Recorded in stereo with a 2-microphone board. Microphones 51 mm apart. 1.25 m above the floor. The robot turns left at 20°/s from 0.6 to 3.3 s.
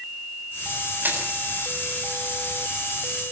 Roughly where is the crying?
No crying in this recording.